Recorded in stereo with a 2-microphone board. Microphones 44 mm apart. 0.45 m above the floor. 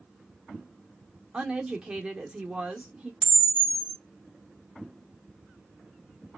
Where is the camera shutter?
10° left (ahead or behind), 1.5 m.